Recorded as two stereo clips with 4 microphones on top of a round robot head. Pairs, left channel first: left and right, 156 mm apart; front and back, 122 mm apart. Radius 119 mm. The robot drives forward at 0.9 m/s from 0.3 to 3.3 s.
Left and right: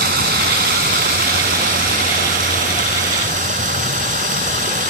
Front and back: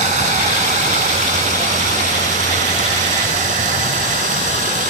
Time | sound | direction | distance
0.0 | running water | 130° right | ?